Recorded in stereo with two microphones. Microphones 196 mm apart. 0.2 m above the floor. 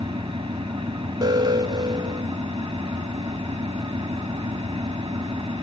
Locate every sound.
0.0 s an engine running: 25° right (ahead or behind), 2 m
1.2 s an alarm: 20° right (ahead or behind), 1.0 m